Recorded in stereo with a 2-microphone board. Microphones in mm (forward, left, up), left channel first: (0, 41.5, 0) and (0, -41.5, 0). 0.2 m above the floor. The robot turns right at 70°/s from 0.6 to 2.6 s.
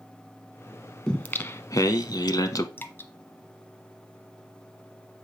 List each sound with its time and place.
1.1 s singing: 10° left, 0.6 m; by 2.7 s 120° left, 0.6 m
2.8 s dripping: 25° left (ahead or behind), 0.9 m